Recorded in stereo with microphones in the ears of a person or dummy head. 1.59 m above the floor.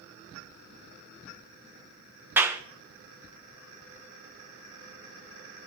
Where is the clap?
10° right (ahead or behind), 0.8 m.